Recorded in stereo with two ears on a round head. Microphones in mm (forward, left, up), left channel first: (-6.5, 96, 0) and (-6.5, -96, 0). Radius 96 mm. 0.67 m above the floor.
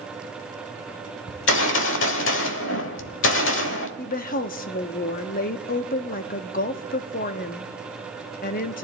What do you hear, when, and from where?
1.3 s a gunshot: 60° left (ahead or behind), 1.2 m
4.0 s a woman speaking: 40° left (ahead or behind), 0.7 m